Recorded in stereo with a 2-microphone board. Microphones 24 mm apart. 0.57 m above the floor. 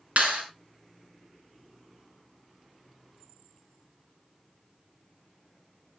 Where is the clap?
65° right (ahead or behind), 5 m.